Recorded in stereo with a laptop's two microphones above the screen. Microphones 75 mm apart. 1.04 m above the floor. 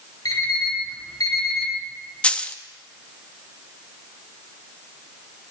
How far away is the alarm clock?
About 3 m.